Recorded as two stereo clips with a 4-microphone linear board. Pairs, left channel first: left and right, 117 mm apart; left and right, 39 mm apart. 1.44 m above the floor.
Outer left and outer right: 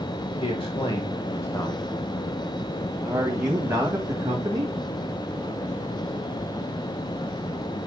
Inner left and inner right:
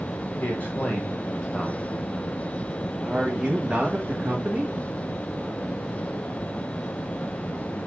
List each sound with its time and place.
0.4 s a man speaking: 55° left (ahead or behind), 2 m; by 4.8 s 30° right (ahead or behind), 3 m